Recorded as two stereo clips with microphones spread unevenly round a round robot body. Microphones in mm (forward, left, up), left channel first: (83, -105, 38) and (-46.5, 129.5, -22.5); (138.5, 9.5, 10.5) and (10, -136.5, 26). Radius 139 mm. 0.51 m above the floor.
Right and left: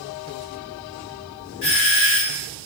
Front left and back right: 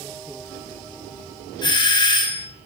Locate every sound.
1.6 s a doorbell: 15° right, 3 m